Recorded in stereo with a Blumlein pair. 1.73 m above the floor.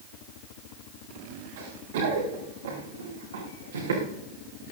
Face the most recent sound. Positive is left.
turn(degrees=-65)